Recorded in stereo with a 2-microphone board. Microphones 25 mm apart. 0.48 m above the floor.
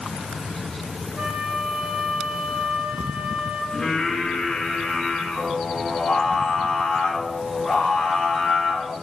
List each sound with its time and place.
1.2 s a flute: 60° right (ahead or behind), 1.7 m
3.7 s singing: 25° left (ahead or behind), 1.6 m